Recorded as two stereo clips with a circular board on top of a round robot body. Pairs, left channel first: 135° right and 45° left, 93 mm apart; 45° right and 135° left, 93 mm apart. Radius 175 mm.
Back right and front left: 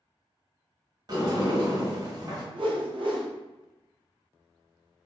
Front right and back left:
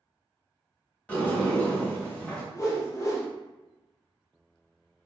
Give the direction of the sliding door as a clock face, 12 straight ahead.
11 o'clock.